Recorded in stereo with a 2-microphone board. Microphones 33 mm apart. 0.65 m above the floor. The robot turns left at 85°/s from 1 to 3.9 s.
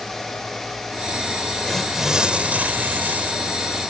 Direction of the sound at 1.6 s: 15° left.